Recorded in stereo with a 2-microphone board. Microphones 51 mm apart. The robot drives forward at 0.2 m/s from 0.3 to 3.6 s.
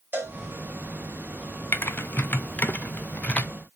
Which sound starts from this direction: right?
A cowbell, at 0.1 s.